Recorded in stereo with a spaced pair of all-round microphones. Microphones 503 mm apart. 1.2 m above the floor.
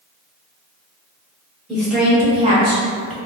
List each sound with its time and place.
1.7 s a woman speaking: centre (ahead or behind), 1.9 m; by 3.1 s 45° right (ahead or behind), 0.6 m